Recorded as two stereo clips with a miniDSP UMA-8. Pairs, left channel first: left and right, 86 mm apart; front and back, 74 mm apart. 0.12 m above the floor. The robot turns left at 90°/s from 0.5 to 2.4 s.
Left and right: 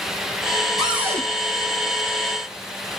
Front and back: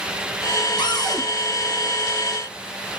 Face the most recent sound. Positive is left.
turn(degrees=-145)